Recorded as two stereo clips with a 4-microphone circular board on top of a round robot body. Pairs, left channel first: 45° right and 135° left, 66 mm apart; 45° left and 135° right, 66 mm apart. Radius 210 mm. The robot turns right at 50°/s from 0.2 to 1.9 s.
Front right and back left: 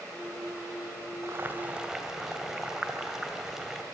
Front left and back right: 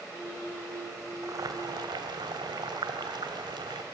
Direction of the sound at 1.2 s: 175° right.